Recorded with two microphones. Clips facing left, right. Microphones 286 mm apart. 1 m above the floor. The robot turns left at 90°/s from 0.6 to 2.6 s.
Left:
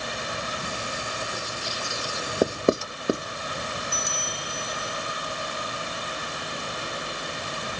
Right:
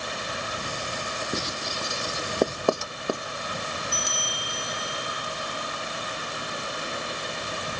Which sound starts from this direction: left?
A bell, at 3.9 s.